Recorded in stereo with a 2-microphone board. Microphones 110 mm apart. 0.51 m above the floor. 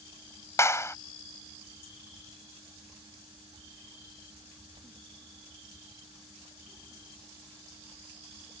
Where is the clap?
25° left (ahead or behind).